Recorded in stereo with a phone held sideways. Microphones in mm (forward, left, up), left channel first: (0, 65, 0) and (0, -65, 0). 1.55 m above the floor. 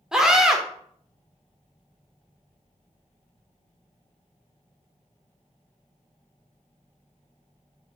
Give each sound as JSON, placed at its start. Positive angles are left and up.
{"t": 0.1, "sound": "a scream", "side_deg": -5, "distance_m": 0.6}